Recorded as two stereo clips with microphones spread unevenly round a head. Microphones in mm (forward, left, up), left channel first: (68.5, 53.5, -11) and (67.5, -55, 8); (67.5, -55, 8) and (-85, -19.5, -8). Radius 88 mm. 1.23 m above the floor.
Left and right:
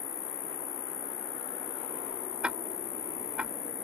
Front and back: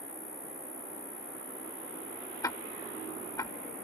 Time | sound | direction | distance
0.0 | an insect | 75° left | ?
2.4 | ticking | 45° right | ?